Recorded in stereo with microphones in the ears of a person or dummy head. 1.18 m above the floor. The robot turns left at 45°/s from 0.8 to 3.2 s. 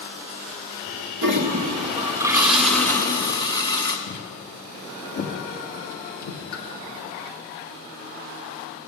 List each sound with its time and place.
1.2 s a toilet flushing: 115° right, 1.5 m; by 4.0 s 160° left, 1.5 m
4.1 s footsteps: 75° left (ahead or behind), 5.5 m; by 6.4 s 70° left (ahead or behind), 4 m
6.5 s a pop: 80° left, 2.5 m